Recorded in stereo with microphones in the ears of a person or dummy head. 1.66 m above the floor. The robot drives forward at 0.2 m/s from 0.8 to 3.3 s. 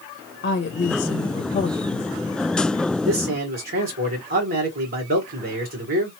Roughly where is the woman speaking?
Left.